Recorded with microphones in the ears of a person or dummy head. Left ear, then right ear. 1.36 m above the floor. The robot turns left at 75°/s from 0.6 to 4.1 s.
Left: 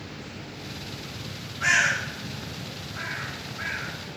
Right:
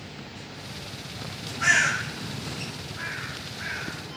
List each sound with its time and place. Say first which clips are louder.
1.6 s a bird: even; 15° right (ahead or behind), 5 m; by 3.9 s 25° left (ahead or behind), 5 m